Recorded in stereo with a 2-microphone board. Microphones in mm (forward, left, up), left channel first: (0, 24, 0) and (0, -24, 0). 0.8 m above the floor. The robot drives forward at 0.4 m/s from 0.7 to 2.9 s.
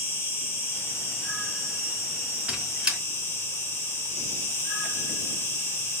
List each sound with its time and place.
0.0 s an insect: 60° left (ahead or behind), 1.3 m; by 6.0 s 80° left, 1.2 m
2.5 s a squeak: 20° right (ahead or behind), 1.4 m; by 3.0 s 15° right (ahead or behind), 1.5 m